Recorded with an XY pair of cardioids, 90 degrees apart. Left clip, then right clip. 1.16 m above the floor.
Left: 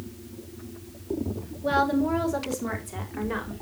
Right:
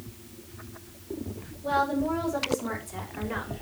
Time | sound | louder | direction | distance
1.6 | a woman speaking | left 2 dB | 65° left | 3.5 m